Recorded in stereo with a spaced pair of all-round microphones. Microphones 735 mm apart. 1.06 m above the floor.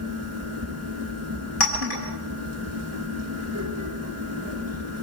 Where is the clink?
55° left (ahead or behind), 6.5 m.